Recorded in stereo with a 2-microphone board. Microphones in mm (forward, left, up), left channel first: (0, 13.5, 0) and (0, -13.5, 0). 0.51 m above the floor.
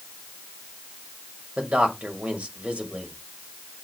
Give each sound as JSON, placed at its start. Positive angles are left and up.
{"t": 1.6, "sound": "a man speaking", "side_deg": -60, "distance_m": 2.0}